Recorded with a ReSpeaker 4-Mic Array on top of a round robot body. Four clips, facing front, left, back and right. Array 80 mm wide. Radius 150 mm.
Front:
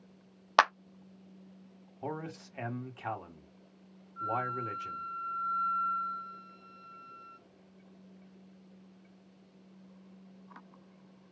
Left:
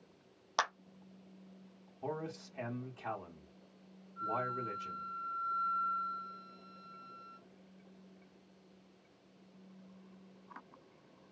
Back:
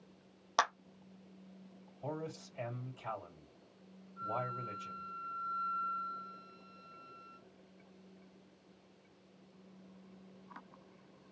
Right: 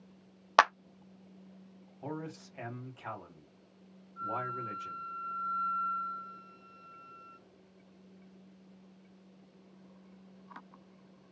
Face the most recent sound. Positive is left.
turn(degrees=-20)